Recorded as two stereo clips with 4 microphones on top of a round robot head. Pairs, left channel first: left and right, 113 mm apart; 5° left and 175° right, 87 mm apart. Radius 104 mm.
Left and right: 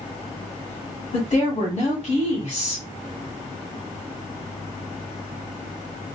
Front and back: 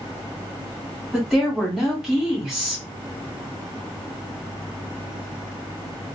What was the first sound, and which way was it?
A woman speaking, 100° left.